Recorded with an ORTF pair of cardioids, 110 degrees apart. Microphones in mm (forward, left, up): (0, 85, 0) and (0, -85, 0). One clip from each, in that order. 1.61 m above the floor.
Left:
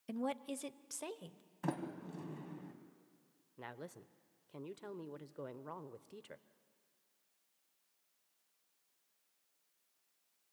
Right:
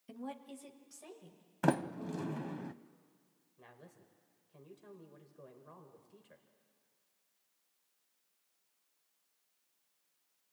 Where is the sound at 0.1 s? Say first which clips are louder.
Left 6 dB; 35° left, 0.8 m; by 1.4 s 75° left, 1.3 m.